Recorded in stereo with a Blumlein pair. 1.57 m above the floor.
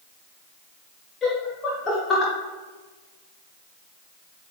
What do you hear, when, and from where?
1.2 s laughter: 20° left, 1.6 m